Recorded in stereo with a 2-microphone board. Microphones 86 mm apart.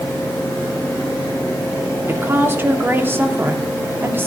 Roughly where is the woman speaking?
Right.